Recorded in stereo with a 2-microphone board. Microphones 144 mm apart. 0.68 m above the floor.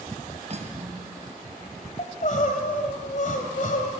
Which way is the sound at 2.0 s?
60° left (ahead or behind).